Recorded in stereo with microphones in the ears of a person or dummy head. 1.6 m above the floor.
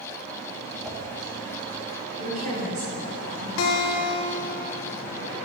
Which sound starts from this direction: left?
A guitar, at 3.6 s.